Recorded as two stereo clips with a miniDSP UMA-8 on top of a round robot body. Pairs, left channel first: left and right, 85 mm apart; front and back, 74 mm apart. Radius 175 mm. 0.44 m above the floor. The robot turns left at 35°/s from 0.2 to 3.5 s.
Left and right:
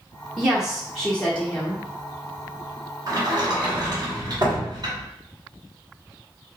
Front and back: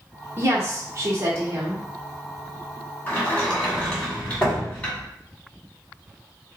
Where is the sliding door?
55° right, 1.9 m; by 5.1 s 70° right, 1.9 m.